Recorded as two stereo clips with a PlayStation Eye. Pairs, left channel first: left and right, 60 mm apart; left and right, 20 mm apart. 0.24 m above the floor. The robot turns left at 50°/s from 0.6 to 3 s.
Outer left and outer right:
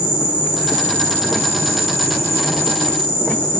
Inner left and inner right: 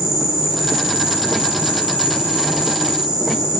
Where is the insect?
25° right, 3.5 m; by 3.6 s 145° right, 3.5 m.